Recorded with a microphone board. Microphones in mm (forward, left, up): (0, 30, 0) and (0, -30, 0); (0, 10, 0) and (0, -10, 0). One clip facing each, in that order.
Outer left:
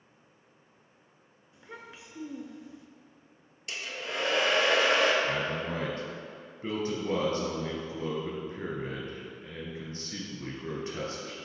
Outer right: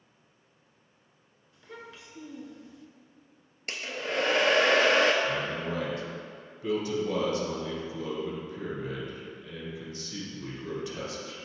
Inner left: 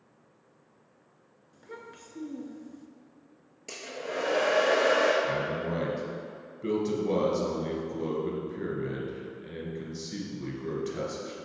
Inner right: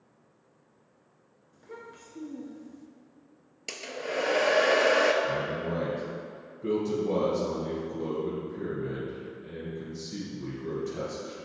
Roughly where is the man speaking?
Left.